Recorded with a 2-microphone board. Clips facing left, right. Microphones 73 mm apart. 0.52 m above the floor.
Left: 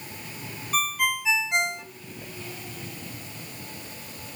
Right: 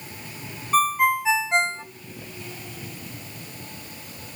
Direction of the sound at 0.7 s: 35° right (ahead or behind).